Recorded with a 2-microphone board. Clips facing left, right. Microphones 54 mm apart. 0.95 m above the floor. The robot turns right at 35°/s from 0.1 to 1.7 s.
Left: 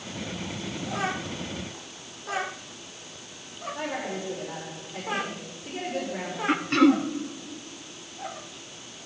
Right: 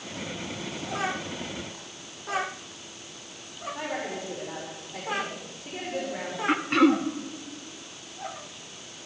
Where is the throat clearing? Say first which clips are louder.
Left 1 dB; 10° right (ahead or behind), 0.6 m.